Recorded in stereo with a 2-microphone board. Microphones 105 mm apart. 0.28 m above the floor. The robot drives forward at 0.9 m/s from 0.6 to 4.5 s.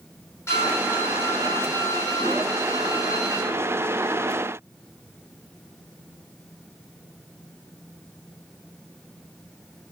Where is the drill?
25° left (ahead or behind), 10 m; by 3.4 s 35° left (ahead or behind), 7.5 m.